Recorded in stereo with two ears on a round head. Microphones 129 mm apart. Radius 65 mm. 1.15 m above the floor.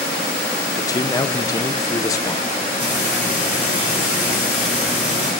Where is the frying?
10° right (ahead or behind), 6 m.